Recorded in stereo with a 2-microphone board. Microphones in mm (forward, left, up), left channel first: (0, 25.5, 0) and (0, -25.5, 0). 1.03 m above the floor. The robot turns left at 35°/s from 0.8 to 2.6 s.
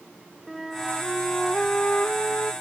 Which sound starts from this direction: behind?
A flute, at 0.5 s.